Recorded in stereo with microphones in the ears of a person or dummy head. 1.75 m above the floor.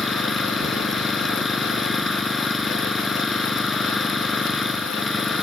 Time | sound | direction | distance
0.0 | an engine running | centre (ahead or behind) | ?